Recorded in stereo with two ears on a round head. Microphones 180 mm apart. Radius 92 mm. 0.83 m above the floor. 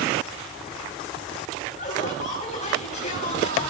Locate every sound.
1.8 s laughter: 35° left (ahead or behind), 5 m